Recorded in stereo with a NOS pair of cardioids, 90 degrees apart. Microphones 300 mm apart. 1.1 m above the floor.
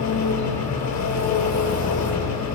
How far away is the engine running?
About 8 m.